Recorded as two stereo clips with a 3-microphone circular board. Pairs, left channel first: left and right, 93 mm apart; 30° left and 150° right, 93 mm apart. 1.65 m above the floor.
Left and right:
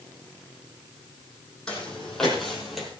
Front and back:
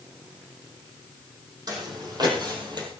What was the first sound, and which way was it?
Footsteps, 170° left.